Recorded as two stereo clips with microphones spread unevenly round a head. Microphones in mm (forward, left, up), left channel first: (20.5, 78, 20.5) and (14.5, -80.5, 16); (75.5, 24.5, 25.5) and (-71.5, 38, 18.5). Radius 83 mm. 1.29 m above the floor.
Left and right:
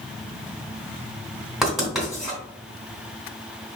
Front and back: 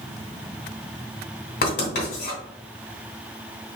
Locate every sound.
1.6 s writing: straight ahead, 2.5 m